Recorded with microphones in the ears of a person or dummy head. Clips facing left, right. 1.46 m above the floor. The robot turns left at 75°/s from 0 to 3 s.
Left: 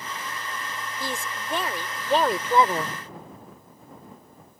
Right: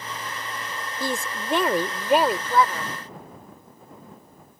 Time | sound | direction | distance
1.0 | a woman speaking | 80° right | ?